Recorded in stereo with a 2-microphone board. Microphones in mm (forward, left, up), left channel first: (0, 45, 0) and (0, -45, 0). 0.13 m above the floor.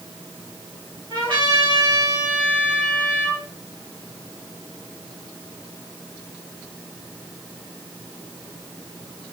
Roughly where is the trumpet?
Right.